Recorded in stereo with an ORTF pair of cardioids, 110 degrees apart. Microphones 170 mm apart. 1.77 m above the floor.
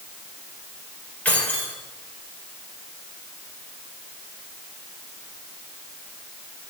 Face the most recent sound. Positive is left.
turn(degrees=10)